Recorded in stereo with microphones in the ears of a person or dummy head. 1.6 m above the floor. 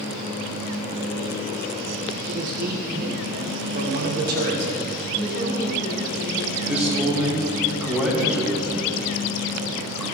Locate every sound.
2.2 s a man speaking: 50° right (ahead or behind), 1.3 m
5.1 s a woman speaking: 70° left (ahead or behind), 3 m
6.5 s a man speaking: 5° right (ahead or behind), 2 m